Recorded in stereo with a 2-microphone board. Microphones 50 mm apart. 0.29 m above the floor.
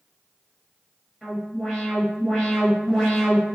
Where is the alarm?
5° left (ahead or behind), 1.3 m.